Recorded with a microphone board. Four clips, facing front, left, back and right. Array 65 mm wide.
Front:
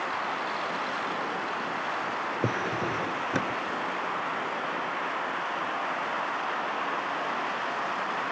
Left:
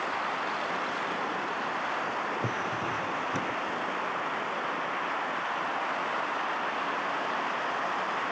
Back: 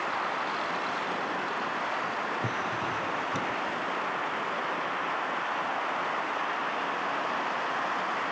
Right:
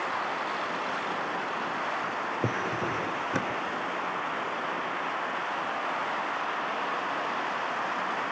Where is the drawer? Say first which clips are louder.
Right 2 dB, front 2 dB; 35° right.